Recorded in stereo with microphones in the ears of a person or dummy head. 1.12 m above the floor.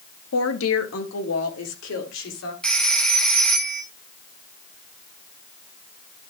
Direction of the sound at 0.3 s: 65° left (ahead or behind).